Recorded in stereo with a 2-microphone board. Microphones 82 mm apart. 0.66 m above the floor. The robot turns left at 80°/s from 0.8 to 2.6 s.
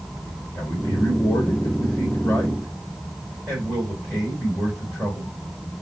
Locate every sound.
0.6 s a man speaking: 150° left, 3 m; by 5.3 s 10° left, 3 m